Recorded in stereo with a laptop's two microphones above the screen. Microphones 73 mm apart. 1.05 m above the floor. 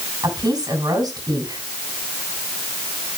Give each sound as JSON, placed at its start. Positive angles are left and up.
{"t": 0.2, "sound": "a woman speaking", "side_deg": -65, "distance_m": 6.5}